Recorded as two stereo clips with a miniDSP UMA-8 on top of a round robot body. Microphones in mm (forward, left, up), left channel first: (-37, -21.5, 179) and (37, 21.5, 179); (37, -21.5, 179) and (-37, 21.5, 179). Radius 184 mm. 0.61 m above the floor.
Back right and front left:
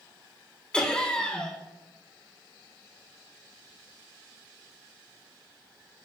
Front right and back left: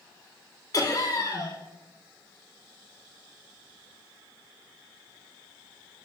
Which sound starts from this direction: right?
Laughter, at 0.7 s.